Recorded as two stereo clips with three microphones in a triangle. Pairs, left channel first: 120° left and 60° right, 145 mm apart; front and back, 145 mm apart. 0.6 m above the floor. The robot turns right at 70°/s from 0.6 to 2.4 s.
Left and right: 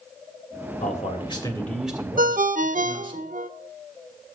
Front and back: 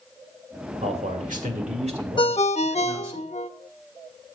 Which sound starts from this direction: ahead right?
A ringtone, at 2.2 s.